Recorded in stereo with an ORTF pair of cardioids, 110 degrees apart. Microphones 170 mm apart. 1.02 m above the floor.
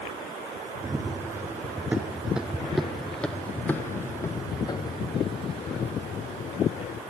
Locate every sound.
0.8 s running footsteps: 20° right, 3 m; by 7.0 s 55° left, 2.5 m